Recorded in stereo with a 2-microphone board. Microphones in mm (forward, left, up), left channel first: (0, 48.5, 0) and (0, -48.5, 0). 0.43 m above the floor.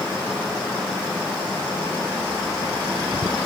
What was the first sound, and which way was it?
Only background noise.